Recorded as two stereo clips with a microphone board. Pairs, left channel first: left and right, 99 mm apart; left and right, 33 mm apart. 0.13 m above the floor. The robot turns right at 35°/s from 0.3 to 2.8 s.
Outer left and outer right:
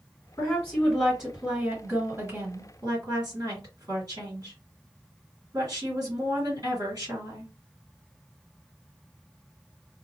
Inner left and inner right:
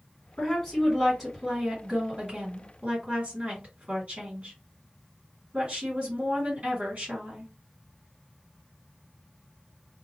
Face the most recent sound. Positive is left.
turn(degrees=-130)